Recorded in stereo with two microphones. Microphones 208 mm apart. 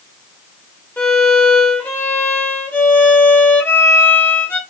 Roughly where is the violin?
Centre.